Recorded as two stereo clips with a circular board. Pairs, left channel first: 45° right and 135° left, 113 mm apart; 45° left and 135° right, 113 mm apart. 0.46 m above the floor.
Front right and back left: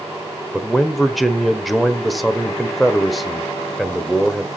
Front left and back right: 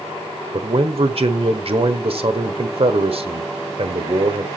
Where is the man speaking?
135° right, 1.2 m.